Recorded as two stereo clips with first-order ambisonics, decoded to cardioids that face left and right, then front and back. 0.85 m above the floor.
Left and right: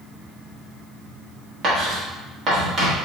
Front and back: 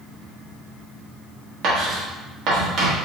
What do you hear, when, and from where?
1.6 s writing: 145° right, 1.4 m